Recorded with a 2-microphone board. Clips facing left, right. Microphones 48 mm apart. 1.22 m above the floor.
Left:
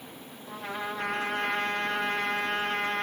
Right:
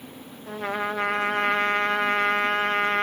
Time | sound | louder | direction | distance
0.5 | a trumpet | right 7 dB | 60° right (ahead or behind) | 1.3 m